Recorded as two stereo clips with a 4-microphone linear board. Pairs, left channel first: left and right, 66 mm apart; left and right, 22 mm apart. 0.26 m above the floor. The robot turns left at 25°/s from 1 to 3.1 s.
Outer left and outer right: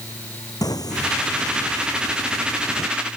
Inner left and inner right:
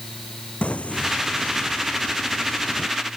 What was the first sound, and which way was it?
Singing, 105° left.